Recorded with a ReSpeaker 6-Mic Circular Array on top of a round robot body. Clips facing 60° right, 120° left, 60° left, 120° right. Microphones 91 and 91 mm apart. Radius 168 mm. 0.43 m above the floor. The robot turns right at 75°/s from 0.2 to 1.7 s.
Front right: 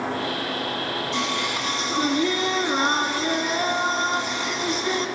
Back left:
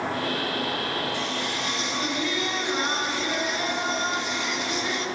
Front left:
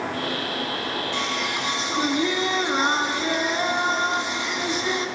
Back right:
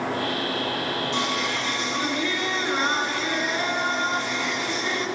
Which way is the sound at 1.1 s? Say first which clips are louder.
Front right 3 dB, back right 1 dB; 50° right.